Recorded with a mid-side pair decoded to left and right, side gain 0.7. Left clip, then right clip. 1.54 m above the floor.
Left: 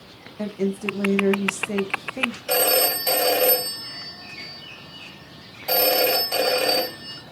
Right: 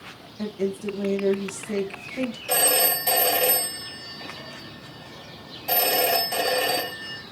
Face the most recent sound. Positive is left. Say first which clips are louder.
# left 1 dB
turn(degrees=20)